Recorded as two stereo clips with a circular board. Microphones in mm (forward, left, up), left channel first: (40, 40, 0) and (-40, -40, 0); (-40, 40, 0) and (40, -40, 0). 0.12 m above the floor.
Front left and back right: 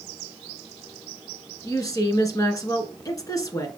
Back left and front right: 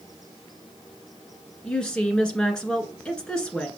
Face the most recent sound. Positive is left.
turn(degrees=60)